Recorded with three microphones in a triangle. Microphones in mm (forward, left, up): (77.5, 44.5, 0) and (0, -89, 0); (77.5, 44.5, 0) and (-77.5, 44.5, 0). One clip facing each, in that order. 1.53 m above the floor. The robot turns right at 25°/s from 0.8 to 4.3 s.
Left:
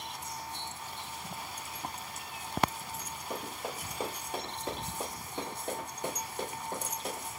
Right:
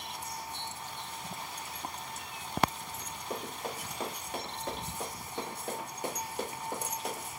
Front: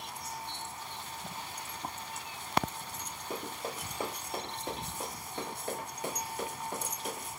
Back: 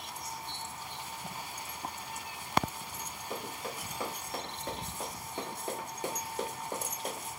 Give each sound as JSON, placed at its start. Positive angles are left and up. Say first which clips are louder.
{"t": 3.3, "sound": "running footsteps", "louder": "right 1 dB, front 1 dB", "azimuth_deg": -20, "distance_m": 1.7}